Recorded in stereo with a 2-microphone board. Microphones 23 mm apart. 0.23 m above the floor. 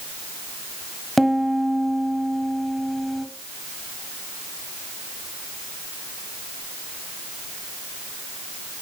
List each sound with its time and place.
1.2 s a piano: 5° left (ahead or behind), 1.6 m